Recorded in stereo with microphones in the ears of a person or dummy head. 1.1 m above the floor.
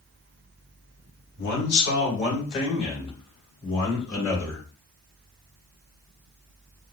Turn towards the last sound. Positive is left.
turn(degrees=25)  # may be behind; listen again after turning